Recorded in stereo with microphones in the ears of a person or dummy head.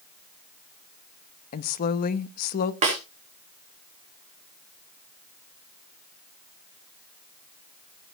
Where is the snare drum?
30° right (ahead or behind), 3 m.